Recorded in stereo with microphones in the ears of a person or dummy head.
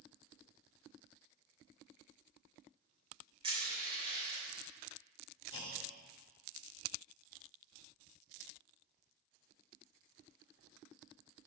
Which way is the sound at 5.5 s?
25° left (ahead or behind).